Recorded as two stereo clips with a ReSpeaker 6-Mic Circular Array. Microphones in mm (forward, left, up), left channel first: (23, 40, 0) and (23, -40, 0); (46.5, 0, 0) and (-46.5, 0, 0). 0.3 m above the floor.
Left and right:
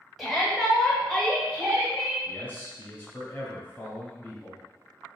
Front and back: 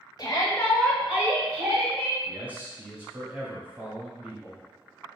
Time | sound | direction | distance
0.2 | a shout | straight ahead | 1.5 m
2.2 | a man speaking | 125° left | 1.4 m